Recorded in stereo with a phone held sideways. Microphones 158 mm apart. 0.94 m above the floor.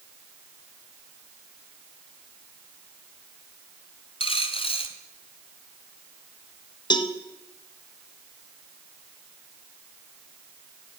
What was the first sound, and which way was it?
A dropped coin, 35° left (ahead or behind).